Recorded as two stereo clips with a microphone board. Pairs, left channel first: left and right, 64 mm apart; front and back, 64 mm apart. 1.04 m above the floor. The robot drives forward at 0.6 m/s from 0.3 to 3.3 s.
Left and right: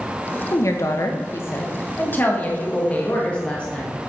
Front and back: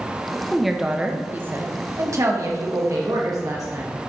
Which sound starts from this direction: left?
A woman speaking, at 0.5 s.